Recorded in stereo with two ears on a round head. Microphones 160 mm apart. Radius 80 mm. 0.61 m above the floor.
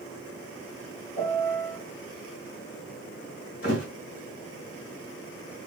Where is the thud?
55° left (ahead or behind), 3 m.